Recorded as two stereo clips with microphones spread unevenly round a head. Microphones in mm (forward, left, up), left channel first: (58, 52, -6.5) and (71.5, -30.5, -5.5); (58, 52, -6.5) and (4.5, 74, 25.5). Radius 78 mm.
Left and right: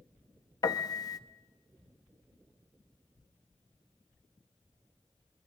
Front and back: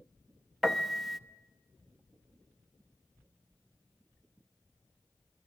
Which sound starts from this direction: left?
A piano, at 0.6 s.